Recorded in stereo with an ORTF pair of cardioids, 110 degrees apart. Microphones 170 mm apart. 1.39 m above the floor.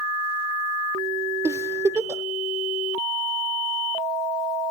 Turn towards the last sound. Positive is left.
turn(degrees=-15)